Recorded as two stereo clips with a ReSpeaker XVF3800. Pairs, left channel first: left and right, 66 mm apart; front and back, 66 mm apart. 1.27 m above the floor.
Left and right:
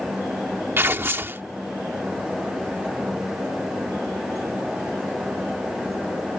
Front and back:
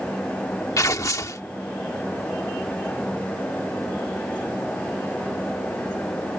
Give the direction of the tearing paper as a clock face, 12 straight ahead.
1 o'clock.